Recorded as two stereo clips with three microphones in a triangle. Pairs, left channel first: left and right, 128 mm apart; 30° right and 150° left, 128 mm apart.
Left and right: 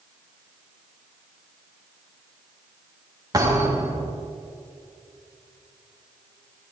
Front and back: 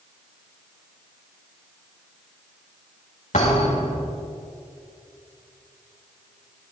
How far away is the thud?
About 4.5 m.